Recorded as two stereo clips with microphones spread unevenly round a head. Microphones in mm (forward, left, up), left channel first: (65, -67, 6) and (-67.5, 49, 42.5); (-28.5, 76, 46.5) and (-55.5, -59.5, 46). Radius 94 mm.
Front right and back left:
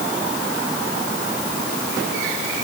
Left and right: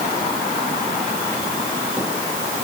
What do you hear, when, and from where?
Only background noise.